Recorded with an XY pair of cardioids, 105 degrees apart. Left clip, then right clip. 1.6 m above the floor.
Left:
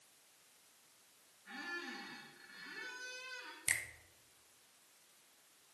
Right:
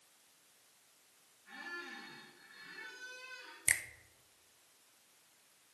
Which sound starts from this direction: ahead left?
A squeak, at 1.4 s.